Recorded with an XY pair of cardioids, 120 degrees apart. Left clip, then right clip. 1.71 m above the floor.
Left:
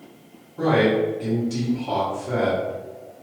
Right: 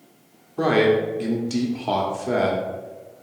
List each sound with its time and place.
0.6 s a man speaking: 50° right, 1.4 m